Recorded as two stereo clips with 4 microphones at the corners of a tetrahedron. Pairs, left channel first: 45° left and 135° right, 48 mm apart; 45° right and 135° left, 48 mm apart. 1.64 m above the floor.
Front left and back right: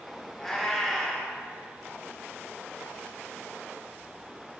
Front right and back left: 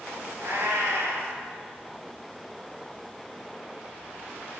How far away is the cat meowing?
About 2.5 m.